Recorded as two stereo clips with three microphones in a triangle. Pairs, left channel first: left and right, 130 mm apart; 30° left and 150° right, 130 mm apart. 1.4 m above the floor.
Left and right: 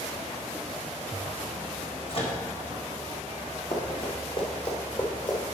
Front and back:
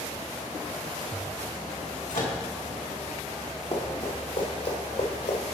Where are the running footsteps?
60° left, 2.5 m; by 5.4 s 40° left, 3 m.